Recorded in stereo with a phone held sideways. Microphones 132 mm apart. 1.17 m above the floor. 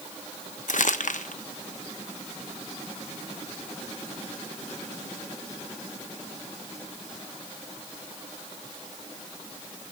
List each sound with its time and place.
0.7 s crumpling: 70° left (ahead or behind), 1.1 m